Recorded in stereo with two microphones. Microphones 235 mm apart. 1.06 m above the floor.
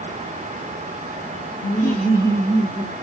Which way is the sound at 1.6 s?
30° left (ahead or behind).